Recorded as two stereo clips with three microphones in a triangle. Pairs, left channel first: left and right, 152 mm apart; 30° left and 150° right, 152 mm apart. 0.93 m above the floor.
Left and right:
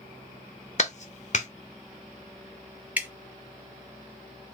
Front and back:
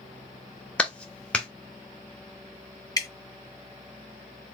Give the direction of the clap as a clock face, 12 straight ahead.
8 o'clock.